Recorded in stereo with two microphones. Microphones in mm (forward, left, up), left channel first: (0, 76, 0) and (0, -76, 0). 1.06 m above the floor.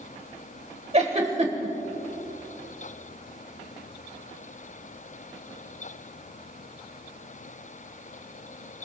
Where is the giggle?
45° right (ahead or behind), 1.9 m.